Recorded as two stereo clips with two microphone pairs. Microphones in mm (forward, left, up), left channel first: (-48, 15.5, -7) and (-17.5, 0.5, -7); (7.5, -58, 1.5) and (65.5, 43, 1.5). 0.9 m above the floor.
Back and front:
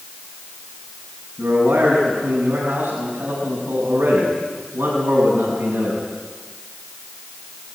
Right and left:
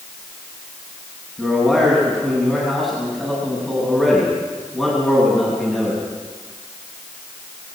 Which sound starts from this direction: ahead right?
A man speaking, at 1.4 s.